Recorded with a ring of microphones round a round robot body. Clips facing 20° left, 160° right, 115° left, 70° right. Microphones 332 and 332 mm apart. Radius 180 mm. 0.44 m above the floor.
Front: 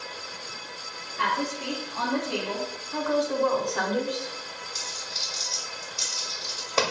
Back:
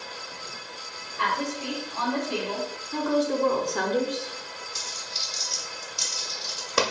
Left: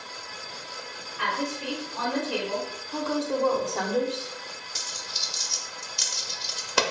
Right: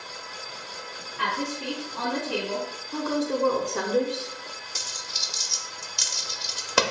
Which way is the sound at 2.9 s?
125° right.